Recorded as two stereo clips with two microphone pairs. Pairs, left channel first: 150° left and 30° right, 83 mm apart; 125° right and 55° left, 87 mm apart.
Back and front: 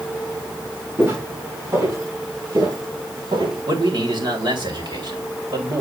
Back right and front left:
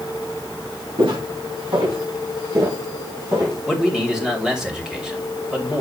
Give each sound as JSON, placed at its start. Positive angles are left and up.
{"t": 1.0, "sound": "footsteps", "azimuth_deg": 35, "distance_m": 3.5}
{"t": 3.7, "sound": "a man speaking", "azimuth_deg": -30, "distance_m": 2.5}